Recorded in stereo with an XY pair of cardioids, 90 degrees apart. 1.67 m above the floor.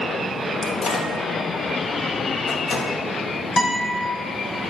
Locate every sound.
0.6 s a microwave: 65° left, 1.4 m
3.6 s a guitar: 40° left, 3.5 m